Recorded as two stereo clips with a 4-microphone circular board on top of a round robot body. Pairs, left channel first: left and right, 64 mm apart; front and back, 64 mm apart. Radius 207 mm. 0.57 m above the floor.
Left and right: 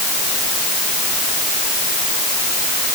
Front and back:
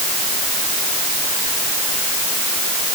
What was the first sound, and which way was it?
Only background noise.